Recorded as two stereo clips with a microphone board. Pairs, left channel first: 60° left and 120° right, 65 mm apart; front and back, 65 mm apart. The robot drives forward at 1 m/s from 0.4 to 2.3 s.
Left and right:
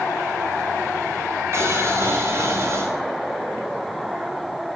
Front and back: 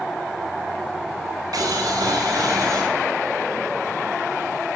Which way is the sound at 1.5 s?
165° right.